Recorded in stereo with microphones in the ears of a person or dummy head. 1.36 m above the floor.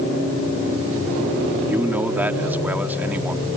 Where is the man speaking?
10° right (ahead or behind).